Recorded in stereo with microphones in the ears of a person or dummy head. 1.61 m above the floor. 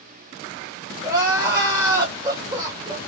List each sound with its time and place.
1.0 s crying: 20° right (ahead or behind), 1.0 m